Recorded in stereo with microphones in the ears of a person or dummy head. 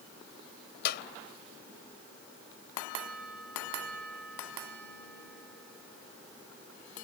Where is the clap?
65° left (ahead or behind).